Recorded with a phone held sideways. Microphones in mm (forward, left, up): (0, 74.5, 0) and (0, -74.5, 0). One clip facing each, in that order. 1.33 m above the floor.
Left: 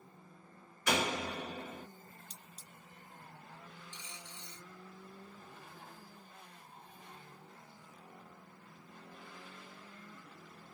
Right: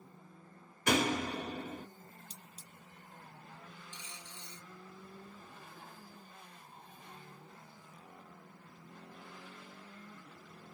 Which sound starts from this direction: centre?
Cutlery clinking, at 2.3 s.